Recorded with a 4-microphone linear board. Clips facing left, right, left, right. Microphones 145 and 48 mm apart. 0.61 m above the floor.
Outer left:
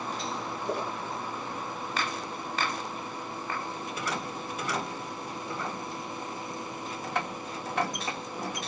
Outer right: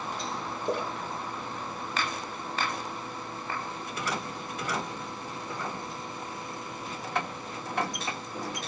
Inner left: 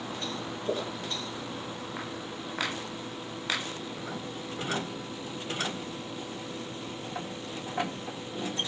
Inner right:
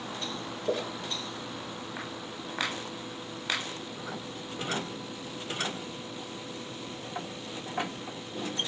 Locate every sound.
0.7 s a splash: 65° right (ahead or behind), 6.5 m